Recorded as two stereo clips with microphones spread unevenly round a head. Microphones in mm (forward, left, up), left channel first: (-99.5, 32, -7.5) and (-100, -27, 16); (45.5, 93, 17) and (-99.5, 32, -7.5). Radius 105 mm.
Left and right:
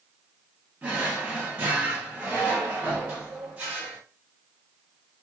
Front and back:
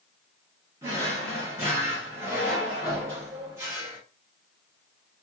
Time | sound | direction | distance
0.8 | a drawer | 75° right | 1.0 m